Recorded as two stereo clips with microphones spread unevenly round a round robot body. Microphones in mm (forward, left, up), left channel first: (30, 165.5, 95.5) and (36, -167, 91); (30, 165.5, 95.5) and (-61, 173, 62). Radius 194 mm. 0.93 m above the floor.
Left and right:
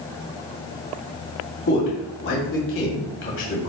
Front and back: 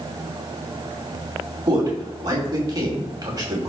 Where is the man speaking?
145° left, 2.5 m.